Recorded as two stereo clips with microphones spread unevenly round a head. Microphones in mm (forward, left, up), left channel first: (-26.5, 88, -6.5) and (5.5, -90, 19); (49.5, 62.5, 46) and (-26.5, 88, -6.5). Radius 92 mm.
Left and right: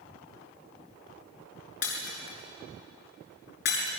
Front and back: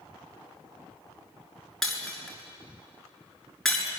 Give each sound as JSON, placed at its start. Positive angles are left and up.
{"t": 1.8, "sound": "breaking glass", "azimuth_deg": 60, "distance_m": 7.0}